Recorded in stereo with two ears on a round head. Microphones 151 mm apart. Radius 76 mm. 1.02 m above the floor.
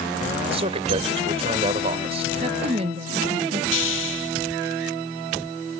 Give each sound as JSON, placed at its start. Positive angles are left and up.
{"t": 0.5, "sound": "a man speaking", "side_deg": -35}
{"t": 2.4, "sound": "a woman speaking", "side_deg": -35}
{"t": 3.7, "sound": "a hiss", "side_deg": 90}